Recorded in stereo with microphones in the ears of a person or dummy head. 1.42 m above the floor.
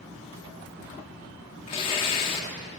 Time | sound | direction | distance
1.7 | tearing paper | 25° left (ahead or behind) | 1.0 m